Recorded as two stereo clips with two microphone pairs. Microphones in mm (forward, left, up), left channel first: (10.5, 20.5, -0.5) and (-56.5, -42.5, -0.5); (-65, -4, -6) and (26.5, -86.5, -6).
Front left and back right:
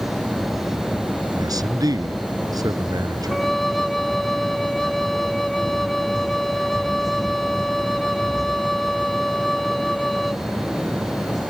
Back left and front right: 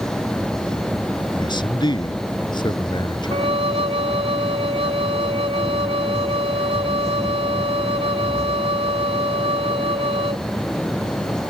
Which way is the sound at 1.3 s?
175° right.